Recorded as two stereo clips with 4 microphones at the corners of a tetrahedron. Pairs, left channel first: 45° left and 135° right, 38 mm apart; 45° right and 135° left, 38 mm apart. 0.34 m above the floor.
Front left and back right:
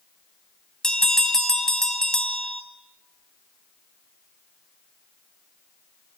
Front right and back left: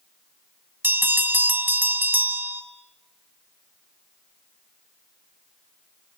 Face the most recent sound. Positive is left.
turn(degrees=115)